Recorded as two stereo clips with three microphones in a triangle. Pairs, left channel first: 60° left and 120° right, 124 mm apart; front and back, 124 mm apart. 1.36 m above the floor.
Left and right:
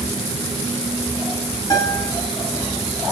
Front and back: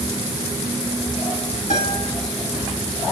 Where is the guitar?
5° left, 9 m.